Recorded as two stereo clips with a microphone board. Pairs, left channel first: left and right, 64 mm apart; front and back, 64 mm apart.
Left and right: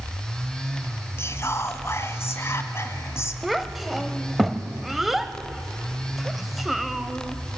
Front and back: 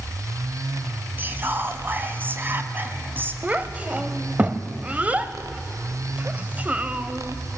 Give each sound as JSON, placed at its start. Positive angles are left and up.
{"t": 1.2, "sound": "whispering", "azimuth_deg": 125, "distance_m": 1.5}
{"t": 3.4, "sound": "a child speaking", "azimuth_deg": -175, "distance_m": 0.8}